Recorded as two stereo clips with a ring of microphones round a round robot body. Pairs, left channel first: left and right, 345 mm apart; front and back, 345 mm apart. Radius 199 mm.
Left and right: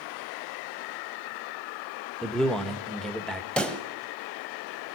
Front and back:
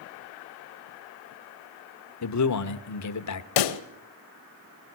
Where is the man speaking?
Straight ahead, 1.5 m.